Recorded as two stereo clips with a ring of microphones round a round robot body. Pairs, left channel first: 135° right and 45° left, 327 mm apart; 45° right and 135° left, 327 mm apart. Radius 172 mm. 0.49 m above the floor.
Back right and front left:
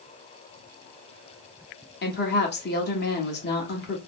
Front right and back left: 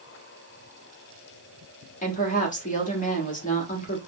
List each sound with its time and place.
2.0 s a woman speaking: 95° right, 1.2 m